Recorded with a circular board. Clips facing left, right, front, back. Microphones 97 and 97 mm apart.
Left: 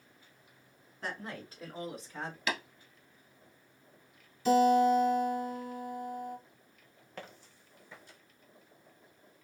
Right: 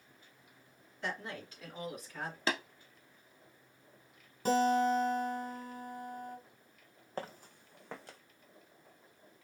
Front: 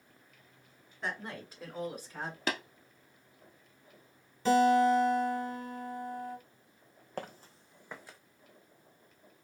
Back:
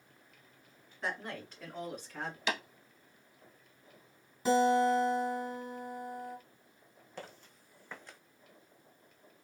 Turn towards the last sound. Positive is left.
turn(degrees=-90)